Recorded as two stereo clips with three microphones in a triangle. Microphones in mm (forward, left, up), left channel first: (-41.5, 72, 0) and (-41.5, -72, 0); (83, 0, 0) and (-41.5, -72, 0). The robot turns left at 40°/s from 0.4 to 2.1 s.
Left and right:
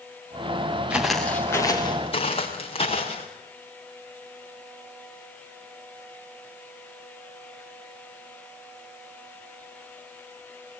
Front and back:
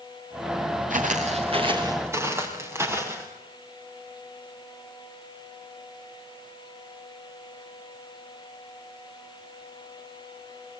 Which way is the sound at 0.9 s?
170° right.